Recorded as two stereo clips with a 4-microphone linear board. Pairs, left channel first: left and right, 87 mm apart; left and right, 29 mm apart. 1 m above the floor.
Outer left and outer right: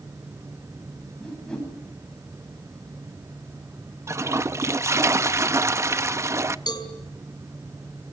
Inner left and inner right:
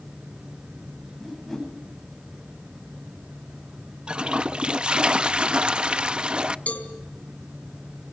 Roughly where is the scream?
I don't hear a scream.